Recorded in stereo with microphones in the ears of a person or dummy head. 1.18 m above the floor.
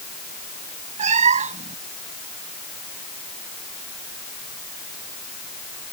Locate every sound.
1.0 s a cat meowing: 30° right (ahead or behind)